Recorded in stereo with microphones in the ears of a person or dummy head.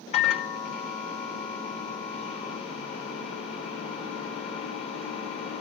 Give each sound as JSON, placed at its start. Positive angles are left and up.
{"t": 0.1, "sound": "a microwave", "side_deg": 40, "distance_m": 0.7}